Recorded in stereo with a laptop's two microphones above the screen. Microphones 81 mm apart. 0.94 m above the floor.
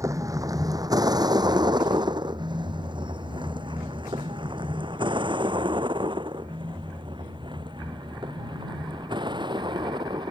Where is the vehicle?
40° right (ahead or behind); by 10.3 s 70° right (ahead or behind).